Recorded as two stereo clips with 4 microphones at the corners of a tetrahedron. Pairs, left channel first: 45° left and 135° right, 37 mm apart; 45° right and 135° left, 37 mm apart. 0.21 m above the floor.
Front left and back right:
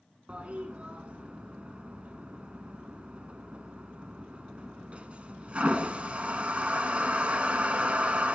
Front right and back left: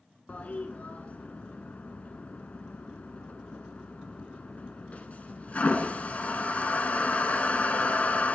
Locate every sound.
0.3 s a toilet flushing: 85° right, 0.6 m